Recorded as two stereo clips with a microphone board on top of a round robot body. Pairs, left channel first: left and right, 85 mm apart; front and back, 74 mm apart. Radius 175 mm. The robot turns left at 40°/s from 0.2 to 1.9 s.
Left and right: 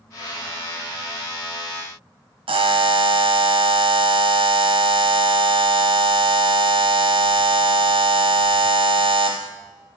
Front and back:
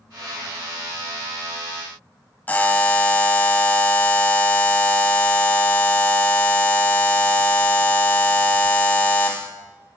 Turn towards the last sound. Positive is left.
turn(degrees=-70)